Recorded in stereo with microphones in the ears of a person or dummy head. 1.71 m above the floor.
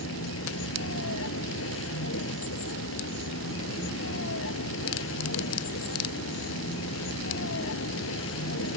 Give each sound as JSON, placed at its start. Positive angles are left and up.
{"t": 0.0, "sound": "a vehicle", "side_deg": 70}